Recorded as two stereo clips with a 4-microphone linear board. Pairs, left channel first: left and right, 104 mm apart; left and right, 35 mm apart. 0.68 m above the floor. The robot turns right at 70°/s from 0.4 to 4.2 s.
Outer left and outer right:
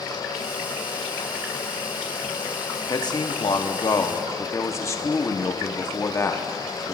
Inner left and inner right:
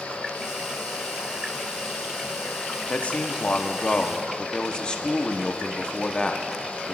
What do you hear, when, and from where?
2.9 s a man speaking: 50° left, 0.9 m; by 6.9 s 145° left, 0.9 m